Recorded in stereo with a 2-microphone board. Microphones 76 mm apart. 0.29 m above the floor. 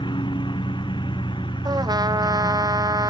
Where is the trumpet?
50° right (ahead or behind).